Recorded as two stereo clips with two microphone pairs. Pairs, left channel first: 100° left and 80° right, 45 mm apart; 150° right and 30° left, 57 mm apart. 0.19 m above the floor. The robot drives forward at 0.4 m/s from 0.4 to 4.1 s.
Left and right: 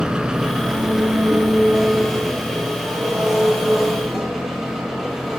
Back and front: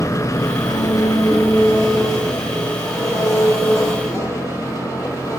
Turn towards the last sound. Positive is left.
turn(degrees=-170)